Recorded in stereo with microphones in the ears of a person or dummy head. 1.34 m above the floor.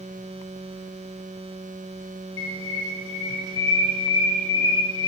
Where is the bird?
75° left (ahead or behind), 5.5 m.